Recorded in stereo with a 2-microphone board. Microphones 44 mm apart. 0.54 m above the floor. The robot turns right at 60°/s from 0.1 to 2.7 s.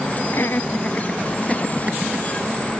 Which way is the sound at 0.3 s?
70° left (ahead or behind).